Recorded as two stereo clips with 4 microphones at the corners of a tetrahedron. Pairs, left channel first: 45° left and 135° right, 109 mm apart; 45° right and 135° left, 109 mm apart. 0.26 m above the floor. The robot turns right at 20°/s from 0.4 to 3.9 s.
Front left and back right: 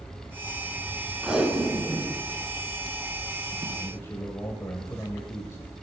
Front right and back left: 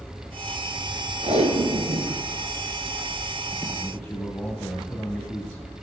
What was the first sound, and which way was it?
Tape being pulled, 140° left.